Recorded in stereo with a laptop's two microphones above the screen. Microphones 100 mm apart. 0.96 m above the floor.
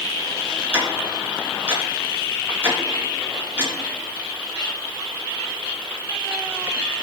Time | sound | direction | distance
0.7 | ticking | 20° right (ahead or behind) | 2.5 m